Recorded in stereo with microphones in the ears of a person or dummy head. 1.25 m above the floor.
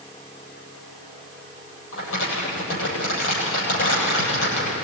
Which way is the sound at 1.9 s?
85° left.